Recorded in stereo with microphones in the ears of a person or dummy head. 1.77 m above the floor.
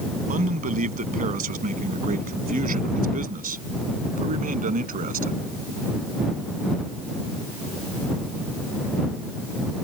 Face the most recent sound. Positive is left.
turn(degrees=-45)  # may be behind; listen again after turning